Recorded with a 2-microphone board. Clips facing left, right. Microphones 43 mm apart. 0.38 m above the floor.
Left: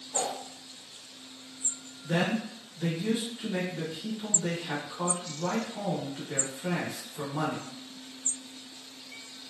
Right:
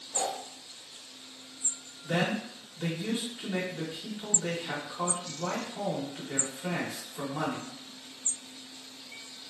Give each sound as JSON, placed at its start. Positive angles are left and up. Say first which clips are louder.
{"t": 0.1, "sound": "a whoosh", "louder": "even", "side_deg": 20, "distance_m": 0.7}
{"t": 2.0, "sound": "a man speaking", "louder": "left 1 dB", "side_deg": -25, "distance_m": 0.9}